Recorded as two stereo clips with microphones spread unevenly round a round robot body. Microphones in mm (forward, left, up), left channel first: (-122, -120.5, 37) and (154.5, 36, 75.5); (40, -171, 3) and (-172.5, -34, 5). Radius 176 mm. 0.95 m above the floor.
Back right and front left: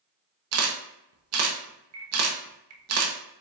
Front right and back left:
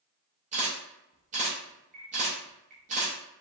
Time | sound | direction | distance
0.5 | a camera shutter | 80° left | 0.6 m